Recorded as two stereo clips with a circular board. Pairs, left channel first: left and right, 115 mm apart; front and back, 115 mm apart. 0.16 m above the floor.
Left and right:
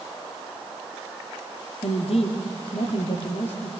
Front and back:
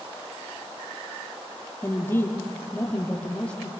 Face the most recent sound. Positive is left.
turn(degrees=80)